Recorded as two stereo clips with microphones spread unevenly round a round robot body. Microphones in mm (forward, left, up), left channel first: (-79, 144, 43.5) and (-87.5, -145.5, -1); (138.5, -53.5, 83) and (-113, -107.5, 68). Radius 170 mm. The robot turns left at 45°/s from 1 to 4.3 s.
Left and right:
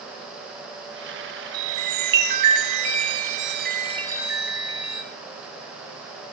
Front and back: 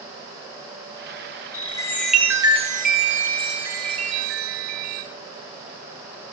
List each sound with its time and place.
1.5 s a chime: 55° right, 3 m; by 5.0 s straight behind, 3 m